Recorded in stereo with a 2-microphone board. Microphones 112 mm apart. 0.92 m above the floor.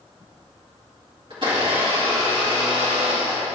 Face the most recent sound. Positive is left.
turn(degrees=-45)  # may be behind; listen again after turning